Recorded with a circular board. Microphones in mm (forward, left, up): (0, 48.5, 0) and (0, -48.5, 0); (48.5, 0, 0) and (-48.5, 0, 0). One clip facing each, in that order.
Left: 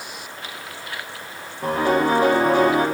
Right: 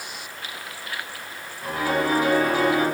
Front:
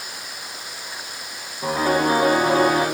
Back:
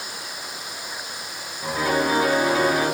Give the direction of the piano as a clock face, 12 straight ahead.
10 o'clock.